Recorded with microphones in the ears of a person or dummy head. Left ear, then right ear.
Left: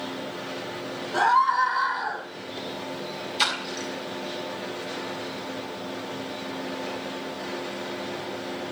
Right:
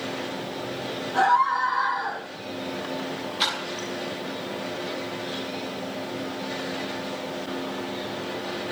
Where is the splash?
50° left (ahead or behind), 7 m.